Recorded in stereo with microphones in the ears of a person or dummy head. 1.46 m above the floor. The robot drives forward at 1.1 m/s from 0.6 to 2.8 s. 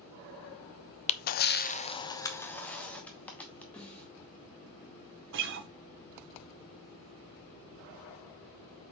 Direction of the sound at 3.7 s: 15° left (ahead or behind).